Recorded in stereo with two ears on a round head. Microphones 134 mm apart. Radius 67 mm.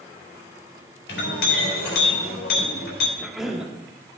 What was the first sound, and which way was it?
A clink, 85° left.